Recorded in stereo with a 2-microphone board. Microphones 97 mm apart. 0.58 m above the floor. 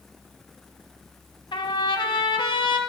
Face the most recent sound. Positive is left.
turn(degrees=55)  # may be behind; listen again after turning